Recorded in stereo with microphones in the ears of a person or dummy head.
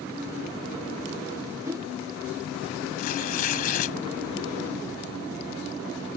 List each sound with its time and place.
1.6 s a whoosh: 15° right (ahead or behind)
3.0 s tearing paper: 40° left (ahead or behind)